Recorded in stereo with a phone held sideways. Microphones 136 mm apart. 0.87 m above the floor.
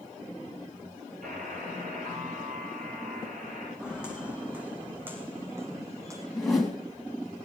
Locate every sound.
1.2 s a buzzer: 70° right (ahead or behind), 8 m
3.8 s footsteps: 5° right (ahead or behind), 3.5 m; by 6.2 s 25° right (ahead or behind), 3 m
6.3 s a whoosh: centre (ahead or behind), 3 m